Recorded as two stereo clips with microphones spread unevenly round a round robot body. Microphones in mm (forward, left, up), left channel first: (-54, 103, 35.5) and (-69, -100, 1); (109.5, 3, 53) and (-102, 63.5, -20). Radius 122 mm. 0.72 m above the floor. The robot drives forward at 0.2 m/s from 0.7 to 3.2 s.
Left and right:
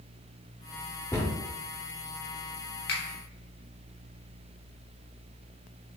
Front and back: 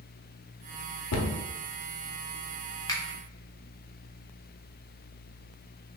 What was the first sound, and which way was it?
A cupboard door, 5° left.